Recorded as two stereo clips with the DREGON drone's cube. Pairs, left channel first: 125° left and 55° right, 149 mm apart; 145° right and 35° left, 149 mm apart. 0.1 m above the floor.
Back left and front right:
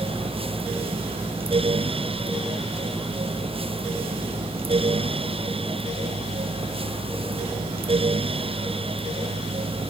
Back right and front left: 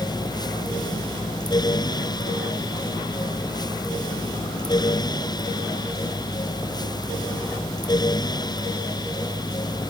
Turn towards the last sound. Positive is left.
No sound to turn to.